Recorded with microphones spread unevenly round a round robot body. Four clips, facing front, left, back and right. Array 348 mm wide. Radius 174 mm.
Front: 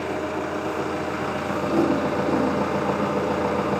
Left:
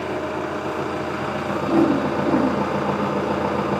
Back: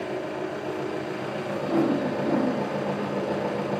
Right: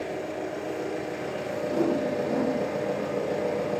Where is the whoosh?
80° left, 2.5 m.